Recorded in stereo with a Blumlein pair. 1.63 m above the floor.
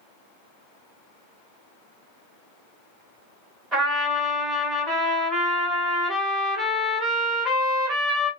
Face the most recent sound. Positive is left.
turn(degrees=-20)